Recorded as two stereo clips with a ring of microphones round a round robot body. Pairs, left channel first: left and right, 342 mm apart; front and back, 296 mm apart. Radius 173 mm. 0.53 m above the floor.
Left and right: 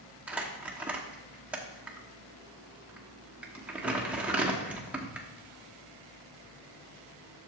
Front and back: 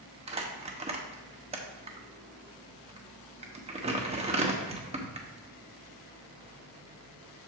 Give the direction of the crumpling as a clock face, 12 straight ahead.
6 o'clock.